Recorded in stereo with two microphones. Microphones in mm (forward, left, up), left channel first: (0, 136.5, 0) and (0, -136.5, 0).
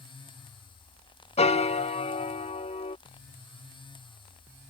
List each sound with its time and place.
1.4 s a piano: 25° left (ahead or behind)